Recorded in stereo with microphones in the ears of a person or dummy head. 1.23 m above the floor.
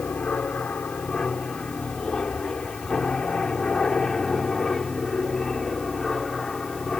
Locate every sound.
0.0 s an aircraft: 10° left (ahead or behind); by 7.0 s 5° left (ahead or behind)